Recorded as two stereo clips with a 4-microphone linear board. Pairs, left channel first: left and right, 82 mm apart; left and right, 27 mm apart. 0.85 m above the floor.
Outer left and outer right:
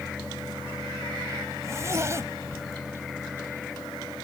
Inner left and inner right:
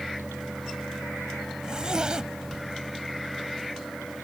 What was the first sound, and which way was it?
A zipper, 35° right (ahead or behind).